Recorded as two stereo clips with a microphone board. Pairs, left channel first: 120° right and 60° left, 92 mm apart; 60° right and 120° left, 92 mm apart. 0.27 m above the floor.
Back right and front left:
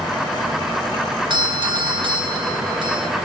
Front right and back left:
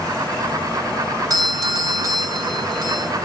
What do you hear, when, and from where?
1.3 s a doorbell: 80° left, 3 m